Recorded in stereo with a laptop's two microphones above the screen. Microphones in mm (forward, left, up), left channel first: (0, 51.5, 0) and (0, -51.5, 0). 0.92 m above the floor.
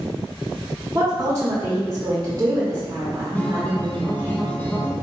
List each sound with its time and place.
0.9 s a woman speaking: 30° right (ahead or behind), 1.1 m
3.4 s a guitar: 15° left (ahead or behind), 0.8 m